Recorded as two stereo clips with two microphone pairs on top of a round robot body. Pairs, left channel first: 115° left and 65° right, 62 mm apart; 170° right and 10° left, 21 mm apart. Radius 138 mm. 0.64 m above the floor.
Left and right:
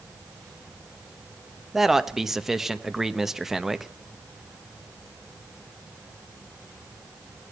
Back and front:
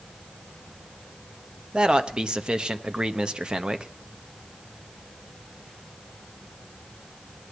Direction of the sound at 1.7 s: 10° left.